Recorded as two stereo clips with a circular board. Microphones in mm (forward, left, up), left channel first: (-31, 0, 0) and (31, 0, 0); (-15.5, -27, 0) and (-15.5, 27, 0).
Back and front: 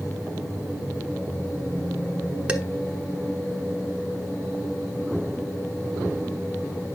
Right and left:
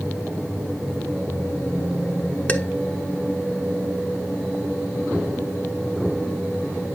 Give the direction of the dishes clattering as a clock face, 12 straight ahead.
2 o'clock.